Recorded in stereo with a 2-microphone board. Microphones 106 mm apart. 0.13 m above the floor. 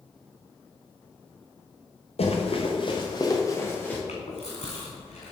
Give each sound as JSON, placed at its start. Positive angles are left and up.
{"t": 2.2, "sound": "running footsteps", "side_deg": 70, "distance_m": 2.5}
{"t": 4.1, "sound": "chewing", "side_deg": 85, "distance_m": 3.0}